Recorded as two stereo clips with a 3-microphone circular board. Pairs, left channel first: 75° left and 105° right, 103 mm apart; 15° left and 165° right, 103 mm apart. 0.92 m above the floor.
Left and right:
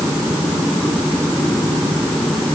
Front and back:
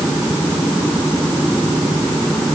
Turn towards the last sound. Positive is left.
No sound to turn to.